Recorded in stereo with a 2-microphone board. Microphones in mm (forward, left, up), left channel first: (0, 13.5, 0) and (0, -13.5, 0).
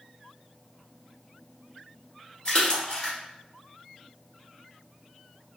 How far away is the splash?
About 1.1 m.